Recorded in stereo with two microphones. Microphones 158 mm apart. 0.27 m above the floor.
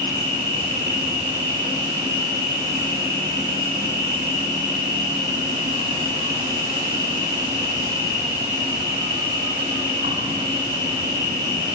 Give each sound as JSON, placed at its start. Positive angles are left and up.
{"t": 0.0, "sound": "an insect", "side_deg": -45, "distance_m": 6.5}